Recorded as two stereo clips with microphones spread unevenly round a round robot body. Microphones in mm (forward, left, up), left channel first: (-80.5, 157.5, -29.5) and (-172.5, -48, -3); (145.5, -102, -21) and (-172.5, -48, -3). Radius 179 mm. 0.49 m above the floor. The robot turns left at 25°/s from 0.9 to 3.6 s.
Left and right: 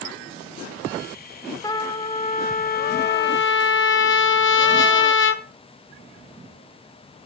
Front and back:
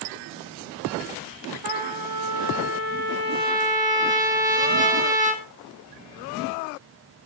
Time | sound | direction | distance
1.6 | a trumpet | 140° left | 0.9 m